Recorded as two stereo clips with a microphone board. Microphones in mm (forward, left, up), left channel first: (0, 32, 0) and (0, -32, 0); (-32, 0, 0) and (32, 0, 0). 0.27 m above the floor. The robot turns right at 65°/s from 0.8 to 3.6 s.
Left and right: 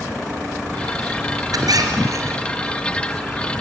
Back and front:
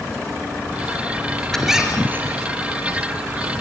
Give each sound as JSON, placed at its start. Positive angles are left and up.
{"t": 1.5, "sound": "a squeak", "azimuth_deg": -95, "distance_m": 3.0}